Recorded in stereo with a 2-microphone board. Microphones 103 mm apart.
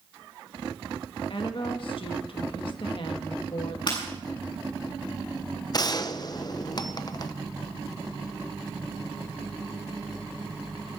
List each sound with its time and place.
1.3 s a woman speaking: 60° left (ahead or behind), 1.5 m
3.9 s breaking glass: 50° left (ahead or behind), 8 m
5.7 s a gunshot: 40° left (ahead or behind), 0.8 m